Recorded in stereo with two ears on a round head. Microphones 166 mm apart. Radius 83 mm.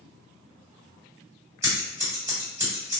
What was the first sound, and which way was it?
Scissors, 15° right (ahead or behind).